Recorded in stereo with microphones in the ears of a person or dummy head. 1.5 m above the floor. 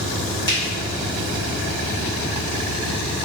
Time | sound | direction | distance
0.5 | a finger snap | 55° left (ahead or behind) | 1.9 m